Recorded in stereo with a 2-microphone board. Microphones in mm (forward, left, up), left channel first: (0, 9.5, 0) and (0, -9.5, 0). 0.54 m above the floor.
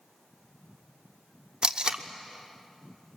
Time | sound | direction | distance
1.6 | tape being pulled | 50° right (ahead or behind) | 0.9 m